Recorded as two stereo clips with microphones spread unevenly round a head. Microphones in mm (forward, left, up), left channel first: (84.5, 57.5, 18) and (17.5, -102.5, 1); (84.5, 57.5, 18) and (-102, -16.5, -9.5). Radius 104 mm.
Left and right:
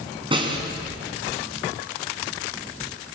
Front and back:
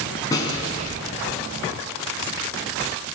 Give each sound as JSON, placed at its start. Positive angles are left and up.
{"t": 0.3, "sound": "a snare drum", "azimuth_deg": -50, "distance_m": 4.5}